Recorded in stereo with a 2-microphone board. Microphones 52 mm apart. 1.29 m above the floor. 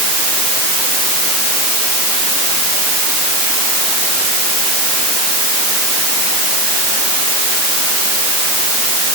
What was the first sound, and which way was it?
Only background noise.